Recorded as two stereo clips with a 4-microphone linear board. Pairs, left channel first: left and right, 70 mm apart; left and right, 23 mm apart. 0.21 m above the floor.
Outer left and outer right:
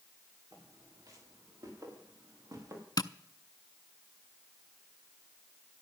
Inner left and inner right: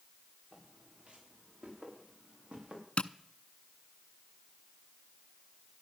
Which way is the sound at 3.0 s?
70° left (ahead or behind).